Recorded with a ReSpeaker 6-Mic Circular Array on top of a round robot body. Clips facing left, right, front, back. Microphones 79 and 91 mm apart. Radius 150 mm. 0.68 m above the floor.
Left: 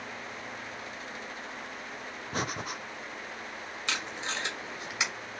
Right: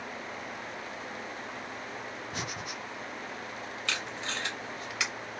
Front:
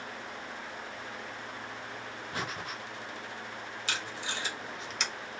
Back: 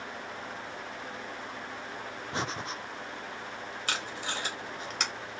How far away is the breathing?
About 0.5 m.